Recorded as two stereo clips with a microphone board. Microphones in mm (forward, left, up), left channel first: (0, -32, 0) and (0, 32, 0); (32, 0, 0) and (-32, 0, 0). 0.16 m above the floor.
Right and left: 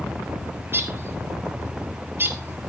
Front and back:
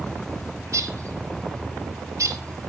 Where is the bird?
145° left, 0.8 m.